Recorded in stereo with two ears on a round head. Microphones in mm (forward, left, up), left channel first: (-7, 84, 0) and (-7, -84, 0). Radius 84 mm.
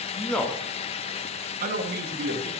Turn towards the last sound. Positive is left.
turn(degrees=-55)  # may be behind; listen again after turning